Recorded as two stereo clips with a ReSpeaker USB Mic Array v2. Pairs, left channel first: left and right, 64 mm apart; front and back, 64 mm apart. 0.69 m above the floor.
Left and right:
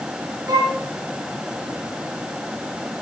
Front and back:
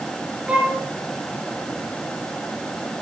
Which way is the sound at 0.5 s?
100° right.